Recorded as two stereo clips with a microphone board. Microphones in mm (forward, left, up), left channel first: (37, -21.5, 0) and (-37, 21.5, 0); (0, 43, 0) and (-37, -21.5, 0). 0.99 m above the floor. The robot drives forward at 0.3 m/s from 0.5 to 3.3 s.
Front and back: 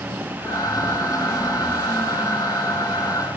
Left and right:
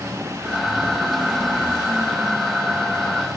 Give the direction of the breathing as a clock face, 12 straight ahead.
12 o'clock.